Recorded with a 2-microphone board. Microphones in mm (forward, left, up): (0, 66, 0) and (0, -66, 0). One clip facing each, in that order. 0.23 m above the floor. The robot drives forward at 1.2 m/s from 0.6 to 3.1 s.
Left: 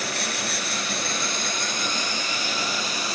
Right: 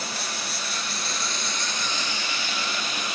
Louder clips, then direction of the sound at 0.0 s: Left 4 dB; 70° left (ahead or behind).